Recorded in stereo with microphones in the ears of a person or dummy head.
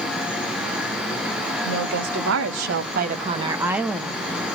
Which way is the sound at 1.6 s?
85° right.